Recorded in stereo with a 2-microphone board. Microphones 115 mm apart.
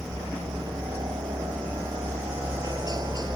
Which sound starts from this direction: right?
A helicopter, at 0.0 s.